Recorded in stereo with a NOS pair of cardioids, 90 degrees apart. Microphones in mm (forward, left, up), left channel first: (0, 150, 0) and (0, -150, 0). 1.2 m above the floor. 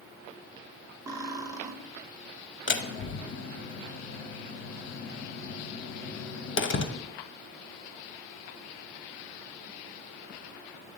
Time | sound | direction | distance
1.1 | cutlery clinking | 10° right | 1.2 m
2.7 | a door slam | 40° left | 1.0 m